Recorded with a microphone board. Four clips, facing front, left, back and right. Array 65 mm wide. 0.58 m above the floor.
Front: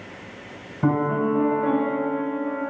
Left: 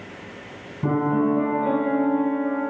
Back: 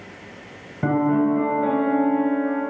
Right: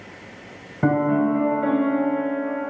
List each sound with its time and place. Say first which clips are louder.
0.8 s a piano: right 2 dB, back 2 dB; 100° right, 2.5 m